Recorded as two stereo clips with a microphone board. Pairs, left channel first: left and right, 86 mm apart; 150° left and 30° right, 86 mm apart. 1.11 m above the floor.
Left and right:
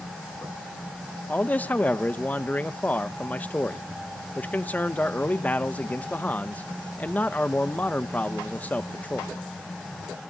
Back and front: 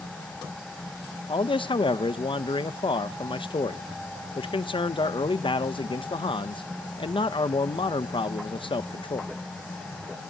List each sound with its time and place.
1.3 s a man speaking: 160° left, 0.6 m